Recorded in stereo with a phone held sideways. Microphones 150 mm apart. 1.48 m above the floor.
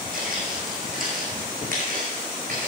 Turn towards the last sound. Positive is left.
turn(degrees=-65)  # may be behind; listen again after turning